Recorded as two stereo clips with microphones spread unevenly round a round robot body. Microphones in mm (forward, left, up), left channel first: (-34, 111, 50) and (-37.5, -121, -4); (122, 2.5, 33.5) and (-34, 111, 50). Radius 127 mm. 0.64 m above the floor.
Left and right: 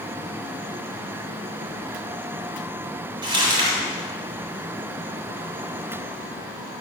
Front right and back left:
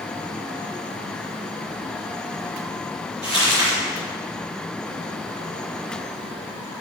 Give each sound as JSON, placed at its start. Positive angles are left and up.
{"t": 3.2, "sound": "crumpling", "azimuth_deg": -165, "distance_m": 4.5}